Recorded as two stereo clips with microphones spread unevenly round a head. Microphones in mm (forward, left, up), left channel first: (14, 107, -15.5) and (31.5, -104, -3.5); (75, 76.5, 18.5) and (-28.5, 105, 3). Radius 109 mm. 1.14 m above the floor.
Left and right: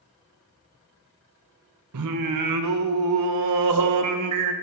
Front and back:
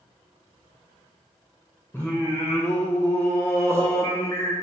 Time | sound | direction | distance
1.9 | singing | 95° right | 0.5 m